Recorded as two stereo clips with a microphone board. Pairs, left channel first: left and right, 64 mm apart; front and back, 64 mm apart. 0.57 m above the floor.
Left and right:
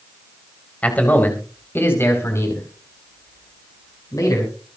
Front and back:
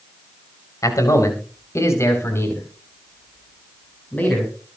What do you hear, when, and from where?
0.8 s a man speaking: 25° left, 3.5 m; by 4.5 s 65° left, 5.5 m